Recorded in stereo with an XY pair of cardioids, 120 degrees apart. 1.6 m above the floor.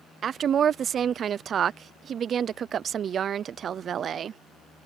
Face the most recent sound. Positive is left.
turn(degrees=-50)